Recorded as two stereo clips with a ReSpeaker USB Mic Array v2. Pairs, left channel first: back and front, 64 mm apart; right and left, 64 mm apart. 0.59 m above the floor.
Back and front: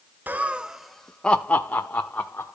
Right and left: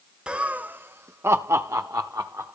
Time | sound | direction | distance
0.3 | laughter | 25° left | 0.6 m